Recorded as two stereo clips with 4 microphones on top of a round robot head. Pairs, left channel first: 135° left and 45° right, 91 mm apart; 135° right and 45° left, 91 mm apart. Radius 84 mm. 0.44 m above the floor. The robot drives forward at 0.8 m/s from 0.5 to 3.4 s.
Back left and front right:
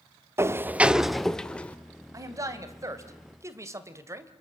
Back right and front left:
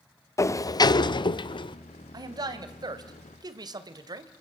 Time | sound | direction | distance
0.4 | a sliding door | 95° right | 0.8 m
2.1 | a man speaking | 5° left | 3 m